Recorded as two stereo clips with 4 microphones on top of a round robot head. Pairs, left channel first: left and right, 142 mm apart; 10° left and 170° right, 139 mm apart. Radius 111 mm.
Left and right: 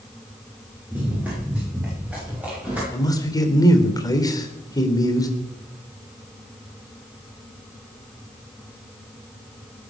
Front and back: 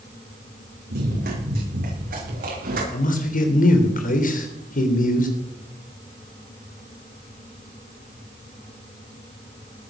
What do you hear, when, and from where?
0.9 s running footsteps: 170° right, 8 m; by 2.8 s 175° right, 9 m
2.9 s a man speaking: 25° left, 3.5 m